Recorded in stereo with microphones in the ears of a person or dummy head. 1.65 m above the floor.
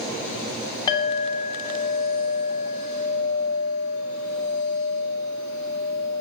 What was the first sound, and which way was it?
A clink, 20° left (ahead or behind).